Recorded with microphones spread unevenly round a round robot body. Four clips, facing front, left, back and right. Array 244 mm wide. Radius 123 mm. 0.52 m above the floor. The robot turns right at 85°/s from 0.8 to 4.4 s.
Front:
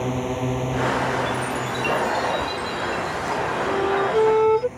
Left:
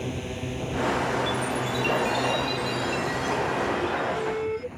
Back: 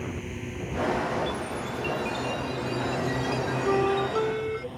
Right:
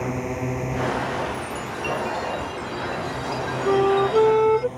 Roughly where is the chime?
Ahead.